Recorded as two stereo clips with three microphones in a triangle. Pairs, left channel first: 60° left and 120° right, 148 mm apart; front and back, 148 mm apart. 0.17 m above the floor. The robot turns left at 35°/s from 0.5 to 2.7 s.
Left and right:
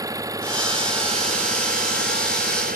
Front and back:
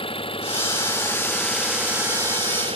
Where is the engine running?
50° right; by 2.8 s 130° right.